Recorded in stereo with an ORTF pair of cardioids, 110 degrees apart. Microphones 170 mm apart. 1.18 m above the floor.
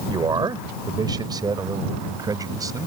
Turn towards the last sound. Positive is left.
turn(degrees=-20)